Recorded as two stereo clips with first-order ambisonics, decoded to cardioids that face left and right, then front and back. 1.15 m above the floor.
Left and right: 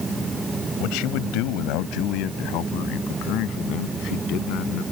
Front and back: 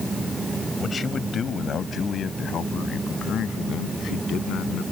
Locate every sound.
0.8 s a man speaking: 70° left; by 4.8 s 50° left